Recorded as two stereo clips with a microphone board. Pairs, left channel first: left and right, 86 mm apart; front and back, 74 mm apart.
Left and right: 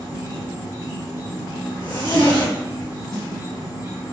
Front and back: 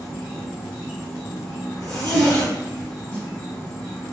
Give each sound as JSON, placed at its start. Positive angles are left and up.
{"t": 0.0, "sound": "an insect", "azimuth_deg": -75, "distance_m": 2.0}
{"t": 1.8, "sound": "a zipper", "azimuth_deg": 80, "distance_m": 1.9}
{"t": 3.1, "sound": "a snare drum", "azimuth_deg": 65, "distance_m": 1.7}